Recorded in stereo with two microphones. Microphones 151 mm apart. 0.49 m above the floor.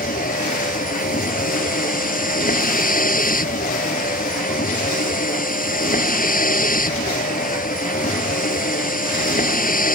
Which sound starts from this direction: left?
A vehicle, at 0.0 s.